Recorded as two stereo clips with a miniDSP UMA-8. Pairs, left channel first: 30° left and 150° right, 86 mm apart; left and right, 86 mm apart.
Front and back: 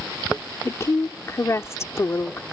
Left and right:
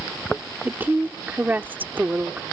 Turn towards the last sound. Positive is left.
turn(degrees=-20)